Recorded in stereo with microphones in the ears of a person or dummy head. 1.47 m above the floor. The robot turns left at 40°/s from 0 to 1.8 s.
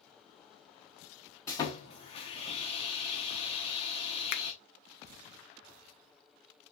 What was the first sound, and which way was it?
Sawing, 15° left (ahead or behind).